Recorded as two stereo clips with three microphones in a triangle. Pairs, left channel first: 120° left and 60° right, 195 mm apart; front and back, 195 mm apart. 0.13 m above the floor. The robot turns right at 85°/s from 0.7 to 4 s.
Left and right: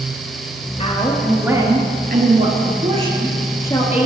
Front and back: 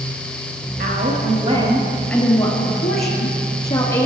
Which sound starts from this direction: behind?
A woman speaking, at 0.8 s.